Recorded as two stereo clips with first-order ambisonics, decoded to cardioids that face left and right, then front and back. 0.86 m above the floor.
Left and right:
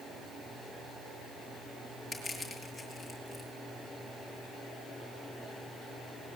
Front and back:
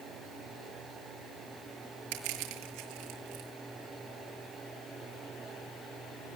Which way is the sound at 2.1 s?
Straight behind.